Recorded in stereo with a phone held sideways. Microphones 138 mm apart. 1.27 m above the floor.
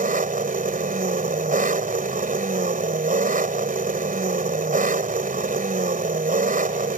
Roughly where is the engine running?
Right.